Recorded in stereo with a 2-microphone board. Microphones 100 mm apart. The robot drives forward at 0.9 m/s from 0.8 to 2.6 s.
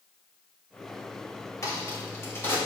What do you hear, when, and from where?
1.6 s a crack: 35° left (ahead or behind), 3 m; by 2.6 s 25° left (ahead or behind), 3.5 m